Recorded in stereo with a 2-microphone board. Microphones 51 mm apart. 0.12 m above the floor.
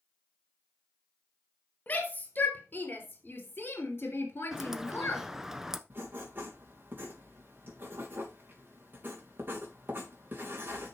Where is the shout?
35° left (ahead or behind), 3 m; by 5.3 s 50° left (ahead or behind), 2.5 m.